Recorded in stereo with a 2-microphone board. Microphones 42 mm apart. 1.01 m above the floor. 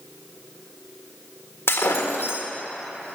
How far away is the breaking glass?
About 1.4 m.